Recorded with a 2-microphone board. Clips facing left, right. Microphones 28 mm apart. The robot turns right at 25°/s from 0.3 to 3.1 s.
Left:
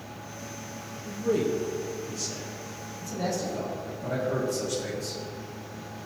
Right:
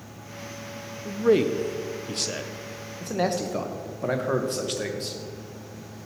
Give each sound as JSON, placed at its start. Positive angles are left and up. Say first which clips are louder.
{"t": 1.1, "sound": "a man speaking", "louder": "right 6 dB", "side_deg": -40, "distance_m": 0.7}
{"t": 3.0, "sound": "a man speaking", "louder": "right 5 dB", "side_deg": -60, "distance_m": 1.7}